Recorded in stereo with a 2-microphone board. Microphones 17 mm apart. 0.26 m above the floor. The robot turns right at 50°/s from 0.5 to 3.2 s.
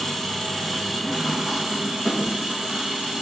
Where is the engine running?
165° left, 3 m; by 3.2 s 60° right, 3 m.